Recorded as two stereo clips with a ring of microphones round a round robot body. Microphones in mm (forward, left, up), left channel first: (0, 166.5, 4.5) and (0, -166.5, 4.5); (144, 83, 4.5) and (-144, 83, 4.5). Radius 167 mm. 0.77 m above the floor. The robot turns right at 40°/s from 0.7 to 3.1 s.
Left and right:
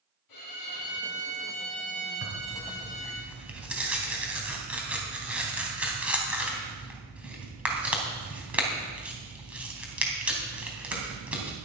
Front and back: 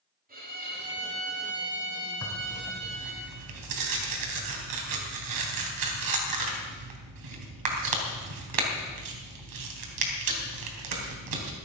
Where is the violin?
120° left, 6.5 m; by 3.2 s 145° right, 6.5 m.